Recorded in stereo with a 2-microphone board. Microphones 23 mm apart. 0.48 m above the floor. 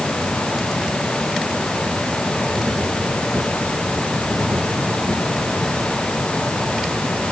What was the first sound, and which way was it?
Only background noise.